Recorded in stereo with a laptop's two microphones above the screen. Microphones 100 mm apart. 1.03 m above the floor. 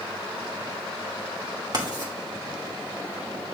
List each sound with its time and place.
1.7 s writing: 45° right (ahead or behind), 2.5 m